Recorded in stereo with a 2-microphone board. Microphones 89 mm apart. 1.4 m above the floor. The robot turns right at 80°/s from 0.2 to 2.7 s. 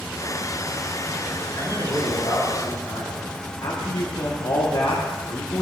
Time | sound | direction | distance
1.6 | a man speaking | 50° left | 5.5 m
3.6 | a man speaking | 75° left (ahead or behind) | 1.5 m